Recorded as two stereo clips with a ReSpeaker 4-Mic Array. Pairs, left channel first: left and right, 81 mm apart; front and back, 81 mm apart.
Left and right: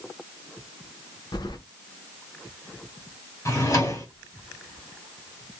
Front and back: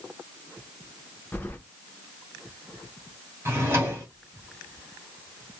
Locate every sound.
1.3 s keys jangling: 65° left, 0.6 m
3.5 s a drawer: 130° left, 1.5 m